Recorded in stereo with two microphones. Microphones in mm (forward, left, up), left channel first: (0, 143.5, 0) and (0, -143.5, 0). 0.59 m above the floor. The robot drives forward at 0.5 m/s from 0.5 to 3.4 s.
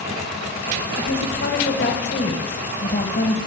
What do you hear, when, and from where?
1.0 s a woman speaking: 45° left (ahead or behind), 3 m; by 3.4 s 35° left (ahead or behind), 4 m